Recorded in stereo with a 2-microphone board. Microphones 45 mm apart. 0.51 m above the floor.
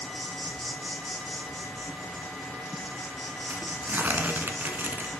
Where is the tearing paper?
45° right (ahead or behind), 1.2 m.